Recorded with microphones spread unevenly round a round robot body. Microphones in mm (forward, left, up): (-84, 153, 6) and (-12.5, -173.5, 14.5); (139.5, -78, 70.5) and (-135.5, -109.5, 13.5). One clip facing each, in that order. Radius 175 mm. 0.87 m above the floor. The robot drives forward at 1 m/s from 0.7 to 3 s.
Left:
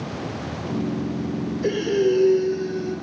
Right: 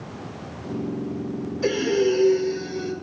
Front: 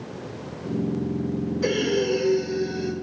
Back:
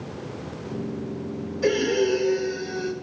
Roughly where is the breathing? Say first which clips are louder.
Even, back 3 dB; right.